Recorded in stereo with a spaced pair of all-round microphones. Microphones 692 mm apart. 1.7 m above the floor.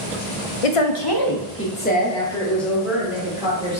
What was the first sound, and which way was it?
A woman speaking, 60° left (ahead or behind).